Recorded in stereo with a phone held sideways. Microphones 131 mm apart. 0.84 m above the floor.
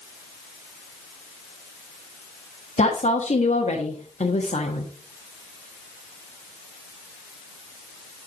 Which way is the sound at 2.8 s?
60° left (ahead or behind).